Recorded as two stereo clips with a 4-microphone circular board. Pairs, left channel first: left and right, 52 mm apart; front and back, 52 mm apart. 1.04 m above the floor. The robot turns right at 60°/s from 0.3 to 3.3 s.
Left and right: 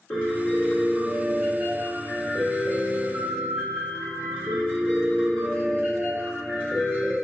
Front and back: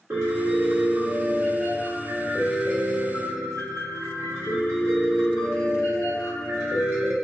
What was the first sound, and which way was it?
A piano, 145° left.